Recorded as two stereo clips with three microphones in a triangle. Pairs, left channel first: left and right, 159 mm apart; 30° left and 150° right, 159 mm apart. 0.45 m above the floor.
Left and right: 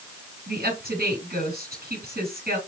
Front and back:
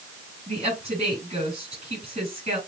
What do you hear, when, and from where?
0.5 s a woman speaking: 105° right, 5 m